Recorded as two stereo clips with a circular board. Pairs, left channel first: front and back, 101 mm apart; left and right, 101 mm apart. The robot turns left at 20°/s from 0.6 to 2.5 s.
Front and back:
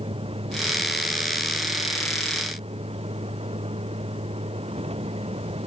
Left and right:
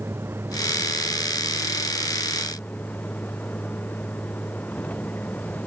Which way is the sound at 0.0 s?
155° right.